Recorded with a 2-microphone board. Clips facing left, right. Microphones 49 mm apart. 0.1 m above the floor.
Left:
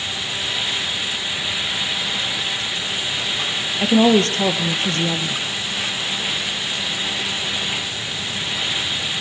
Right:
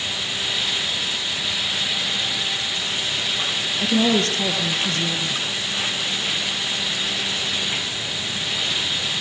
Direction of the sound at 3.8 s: 40° left (ahead or behind).